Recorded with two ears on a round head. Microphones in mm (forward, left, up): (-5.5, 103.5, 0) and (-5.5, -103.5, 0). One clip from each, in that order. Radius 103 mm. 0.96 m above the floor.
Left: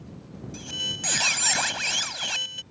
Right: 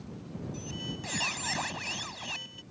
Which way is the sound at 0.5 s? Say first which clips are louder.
Left 12 dB; 60° left (ahead or behind).